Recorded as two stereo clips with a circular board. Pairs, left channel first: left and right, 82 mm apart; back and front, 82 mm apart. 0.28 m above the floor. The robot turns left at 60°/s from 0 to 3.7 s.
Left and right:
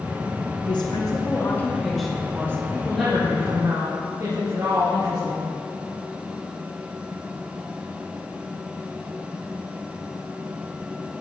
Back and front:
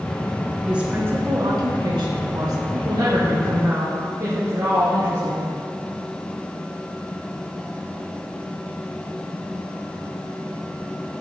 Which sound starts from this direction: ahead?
A woman speaking, at 2.7 s.